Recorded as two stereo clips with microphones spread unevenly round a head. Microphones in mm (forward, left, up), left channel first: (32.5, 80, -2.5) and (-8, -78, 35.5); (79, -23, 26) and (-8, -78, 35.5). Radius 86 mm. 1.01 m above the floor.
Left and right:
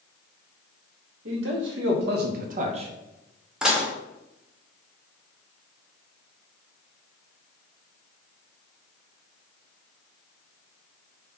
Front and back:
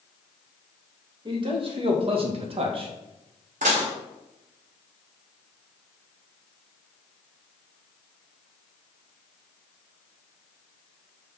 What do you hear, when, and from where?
1.2 s a man speaking: 110° right, 1.6 m; by 2.9 s 170° right, 0.9 m
3.6 s dishes clattering: 175° left, 0.7 m